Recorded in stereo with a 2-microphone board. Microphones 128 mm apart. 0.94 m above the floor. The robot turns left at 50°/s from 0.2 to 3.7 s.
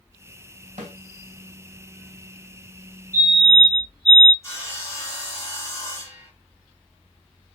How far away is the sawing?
About 4 m.